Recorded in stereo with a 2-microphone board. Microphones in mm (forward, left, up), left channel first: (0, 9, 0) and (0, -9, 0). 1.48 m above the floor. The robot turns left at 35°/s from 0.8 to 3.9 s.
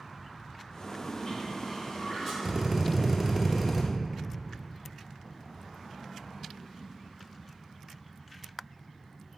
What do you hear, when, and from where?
0.9 s a toilet flushing: 55° left, 2.0 m; by 2.3 s 10° left, 2.0 m
2.4 s a drill: 20° right (ahead or behind), 0.8 m; by 3.8 s 10° right (ahead or behind), 0.8 m